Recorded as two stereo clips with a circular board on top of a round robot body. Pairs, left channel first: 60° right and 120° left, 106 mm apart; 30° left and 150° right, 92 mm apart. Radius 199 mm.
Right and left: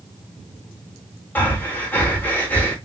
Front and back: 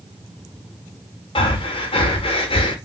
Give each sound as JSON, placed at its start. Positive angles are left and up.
{"t": 1.4, "sound": "breathing", "azimuth_deg": 15, "distance_m": 0.7}